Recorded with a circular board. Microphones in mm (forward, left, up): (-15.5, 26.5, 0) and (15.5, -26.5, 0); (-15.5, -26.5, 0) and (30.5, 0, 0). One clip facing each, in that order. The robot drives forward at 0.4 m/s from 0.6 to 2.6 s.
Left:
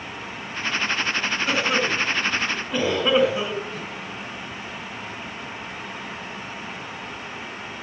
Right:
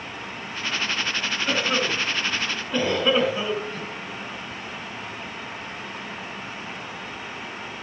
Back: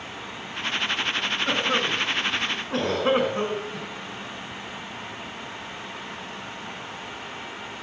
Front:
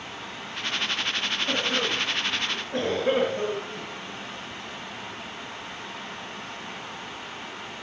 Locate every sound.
1.5 s a cough: 155° right, 6 m